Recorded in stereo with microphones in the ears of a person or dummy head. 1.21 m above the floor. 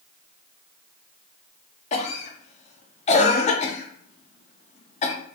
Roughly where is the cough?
Left.